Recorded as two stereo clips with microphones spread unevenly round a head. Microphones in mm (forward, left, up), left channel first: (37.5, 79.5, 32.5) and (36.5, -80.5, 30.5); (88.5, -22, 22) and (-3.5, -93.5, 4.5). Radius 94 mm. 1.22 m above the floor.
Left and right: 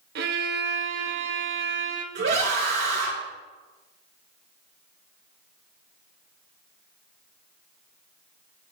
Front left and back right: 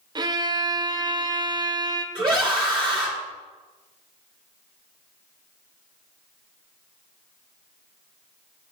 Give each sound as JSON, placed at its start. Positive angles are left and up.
{"t": 0.1, "sound": "a violin", "azimuth_deg": -90, "distance_m": 0.8}
{"t": 2.1, "sound": "a scream", "azimuth_deg": -90, "distance_m": 1.8}